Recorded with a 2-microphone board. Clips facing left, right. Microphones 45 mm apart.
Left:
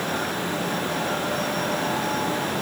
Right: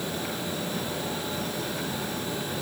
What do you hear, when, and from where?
Only background noise.